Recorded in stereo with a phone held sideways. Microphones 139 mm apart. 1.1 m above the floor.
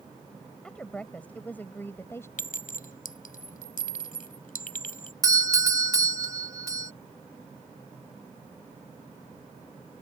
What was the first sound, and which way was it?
A woman speaking, 5° left (ahead or behind).